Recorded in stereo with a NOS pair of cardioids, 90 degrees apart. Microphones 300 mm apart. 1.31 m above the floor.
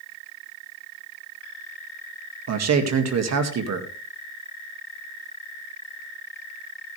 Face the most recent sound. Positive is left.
turn(degrees=-60)